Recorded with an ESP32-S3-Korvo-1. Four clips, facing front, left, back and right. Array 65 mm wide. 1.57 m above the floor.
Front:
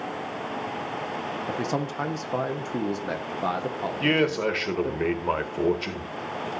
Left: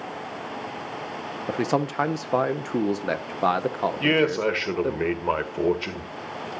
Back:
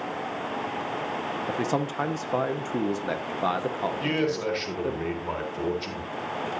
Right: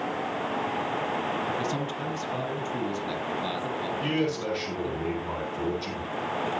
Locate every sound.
1.5 s a man speaking: 100° left, 0.8 m
4.0 s a man speaking: 60° left, 1.8 m